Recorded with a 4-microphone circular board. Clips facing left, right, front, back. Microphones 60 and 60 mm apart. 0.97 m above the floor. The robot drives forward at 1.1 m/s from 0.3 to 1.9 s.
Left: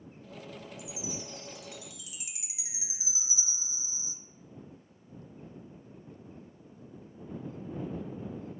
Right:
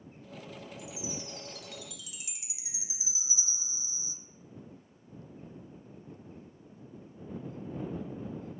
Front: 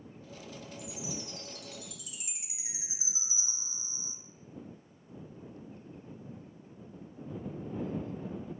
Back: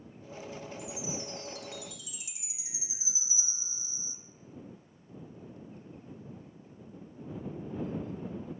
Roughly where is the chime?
Ahead.